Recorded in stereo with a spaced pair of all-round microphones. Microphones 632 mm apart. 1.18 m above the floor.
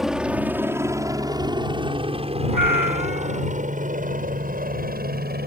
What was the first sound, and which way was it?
A helicopter, centre (ahead or behind).